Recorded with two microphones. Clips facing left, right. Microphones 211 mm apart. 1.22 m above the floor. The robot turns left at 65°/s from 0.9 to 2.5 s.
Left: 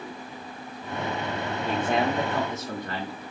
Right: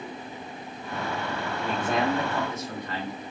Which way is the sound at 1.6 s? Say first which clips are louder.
Left 1 dB; 175° right.